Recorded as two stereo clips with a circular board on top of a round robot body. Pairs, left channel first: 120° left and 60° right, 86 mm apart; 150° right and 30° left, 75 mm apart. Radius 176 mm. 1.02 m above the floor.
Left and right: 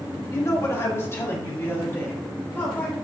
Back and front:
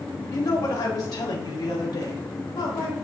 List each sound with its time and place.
0.3 s a woman speaking: 170° left, 2 m; by 3.0 s 170° right, 4.5 m